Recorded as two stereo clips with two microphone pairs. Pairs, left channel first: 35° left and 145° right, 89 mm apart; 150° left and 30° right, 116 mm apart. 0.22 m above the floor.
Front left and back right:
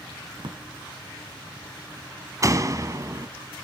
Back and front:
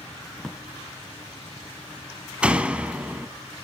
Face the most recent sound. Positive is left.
turn(degrees=-105)